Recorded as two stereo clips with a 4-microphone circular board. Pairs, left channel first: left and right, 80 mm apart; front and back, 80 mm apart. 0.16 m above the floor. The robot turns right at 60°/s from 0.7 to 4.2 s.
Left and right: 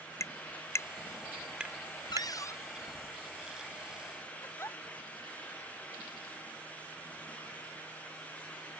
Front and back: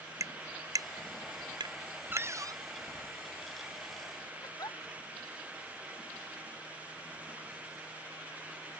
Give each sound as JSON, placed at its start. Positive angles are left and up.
{"t": 0.2, "sound": "tapping", "azimuth_deg": 140}
{"t": 2.1, "sound": "a cupboard door", "azimuth_deg": 115}
{"t": 4.4, "sound": "a giggle", "azimuth_deg": 35}